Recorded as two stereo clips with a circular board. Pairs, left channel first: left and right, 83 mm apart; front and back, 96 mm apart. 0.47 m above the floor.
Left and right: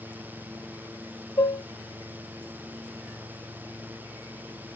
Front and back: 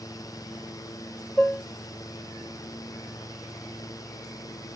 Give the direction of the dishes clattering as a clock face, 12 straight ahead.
10 o'clock.